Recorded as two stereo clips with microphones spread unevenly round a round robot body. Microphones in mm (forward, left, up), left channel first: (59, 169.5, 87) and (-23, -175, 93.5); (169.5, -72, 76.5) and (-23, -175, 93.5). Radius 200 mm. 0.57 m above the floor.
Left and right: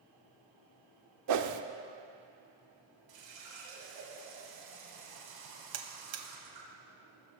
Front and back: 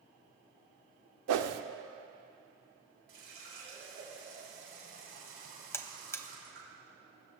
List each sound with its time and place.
1.3 s a whoosh: 150° right, 0.6 m
3.1 s a running tap: 130° right, 4 m
5.7 s a buzzer: 55° right, 1.1 m